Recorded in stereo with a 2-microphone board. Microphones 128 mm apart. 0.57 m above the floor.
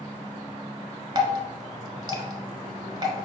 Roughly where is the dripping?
Right.